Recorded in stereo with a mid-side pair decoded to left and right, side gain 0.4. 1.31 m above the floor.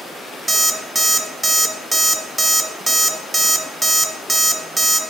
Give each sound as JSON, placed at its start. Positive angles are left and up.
{"t": 0.5, "sound": "an alarm clock", "azimuth_deg": -20, "distance_m": 1.3}